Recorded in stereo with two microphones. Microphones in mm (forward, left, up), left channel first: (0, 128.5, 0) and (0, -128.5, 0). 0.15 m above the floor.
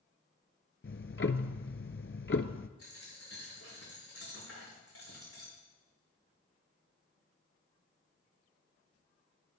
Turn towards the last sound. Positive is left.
turn(degrees=65)  # may be behind; listen again after turning